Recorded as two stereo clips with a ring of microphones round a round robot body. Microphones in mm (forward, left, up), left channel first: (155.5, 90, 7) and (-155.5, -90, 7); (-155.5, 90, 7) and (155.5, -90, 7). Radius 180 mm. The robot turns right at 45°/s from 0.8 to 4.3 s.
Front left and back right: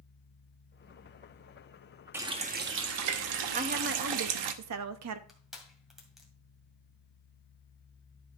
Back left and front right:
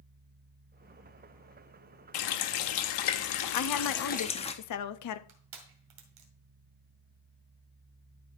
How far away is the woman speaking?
About 0.7 m.